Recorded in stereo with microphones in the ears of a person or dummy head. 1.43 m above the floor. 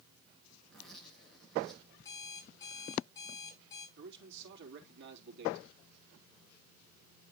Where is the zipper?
5° left (ahead or behind), 7.5 m.